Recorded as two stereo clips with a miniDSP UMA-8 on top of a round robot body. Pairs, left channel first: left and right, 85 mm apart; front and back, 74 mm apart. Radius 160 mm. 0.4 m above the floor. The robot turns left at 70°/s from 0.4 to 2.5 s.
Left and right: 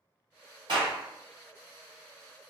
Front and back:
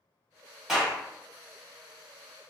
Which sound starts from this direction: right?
A clap, at 0.7 s.